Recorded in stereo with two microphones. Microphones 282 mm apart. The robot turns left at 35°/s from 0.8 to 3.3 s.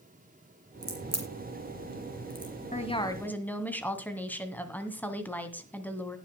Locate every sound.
0.8 s a crack: 70° right (ahead or behind), 4 m; by 2.5 s 10° right (ahead or behind), 4 m
2.7 s a woman speaking: 25° left (ahead or behind), 2 m; by 6.2 s 5° left (ahead or behind), 2 m